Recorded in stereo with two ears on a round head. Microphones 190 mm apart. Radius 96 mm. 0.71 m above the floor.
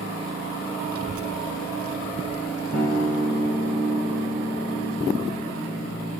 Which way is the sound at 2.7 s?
Centre (ahead or behind).